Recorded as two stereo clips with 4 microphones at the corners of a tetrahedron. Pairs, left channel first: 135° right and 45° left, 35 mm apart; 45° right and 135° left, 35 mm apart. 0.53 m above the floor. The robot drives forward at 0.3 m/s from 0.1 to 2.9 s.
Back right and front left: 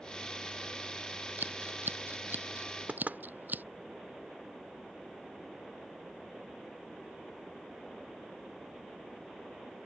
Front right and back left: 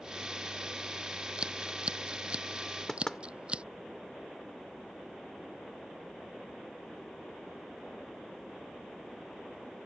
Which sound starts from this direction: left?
Scissors, at 1.4 s.